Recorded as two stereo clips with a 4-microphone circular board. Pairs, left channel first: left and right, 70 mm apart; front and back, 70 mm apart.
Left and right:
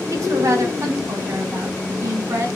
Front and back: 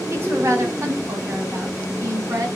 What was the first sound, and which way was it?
A woman speaking, 130° right.